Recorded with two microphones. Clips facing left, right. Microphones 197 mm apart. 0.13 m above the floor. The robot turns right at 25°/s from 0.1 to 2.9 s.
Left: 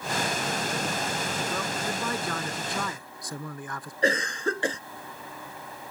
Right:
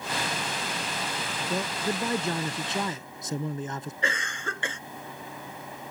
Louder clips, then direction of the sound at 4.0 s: Left 11 dB; 40° left (ahead or behind).